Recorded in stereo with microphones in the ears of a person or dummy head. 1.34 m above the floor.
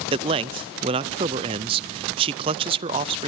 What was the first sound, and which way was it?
A man speaking, 25° right (ahead or behind).